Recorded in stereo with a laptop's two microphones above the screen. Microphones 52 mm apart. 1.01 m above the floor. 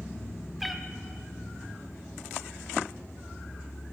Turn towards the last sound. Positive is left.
turn(degrees=0)  # may be behind; listen again after turning